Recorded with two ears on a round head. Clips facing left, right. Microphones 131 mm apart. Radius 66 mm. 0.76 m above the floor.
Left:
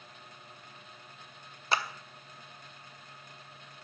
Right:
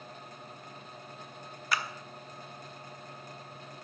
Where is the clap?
25° left (ahead or behind), 0.7 m.